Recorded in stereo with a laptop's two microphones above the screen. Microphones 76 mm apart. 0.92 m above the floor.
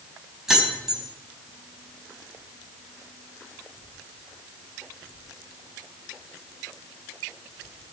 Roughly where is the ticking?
No ticking in this recording.